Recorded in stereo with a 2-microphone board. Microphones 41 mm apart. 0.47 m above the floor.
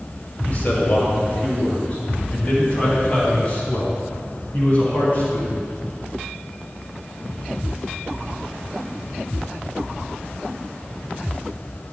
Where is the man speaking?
40° left (ahead or behind), 2.5 m.